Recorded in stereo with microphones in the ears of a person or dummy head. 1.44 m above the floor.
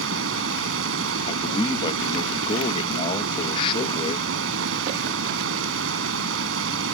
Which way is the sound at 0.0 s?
80° right.